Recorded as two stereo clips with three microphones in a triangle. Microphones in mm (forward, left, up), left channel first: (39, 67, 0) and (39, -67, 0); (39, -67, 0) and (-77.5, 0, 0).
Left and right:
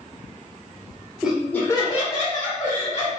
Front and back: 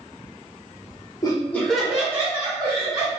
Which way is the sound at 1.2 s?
10° right.